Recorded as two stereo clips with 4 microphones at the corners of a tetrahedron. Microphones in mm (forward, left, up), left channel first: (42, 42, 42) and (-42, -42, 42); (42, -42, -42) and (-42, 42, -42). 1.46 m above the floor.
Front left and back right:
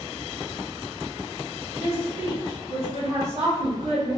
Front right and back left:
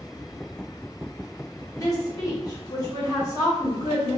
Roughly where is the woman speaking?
Right.